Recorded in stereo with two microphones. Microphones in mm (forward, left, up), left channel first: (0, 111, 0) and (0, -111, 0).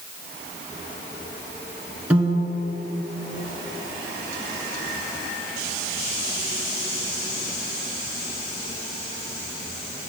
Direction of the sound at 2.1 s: 5° right (ahead or behind).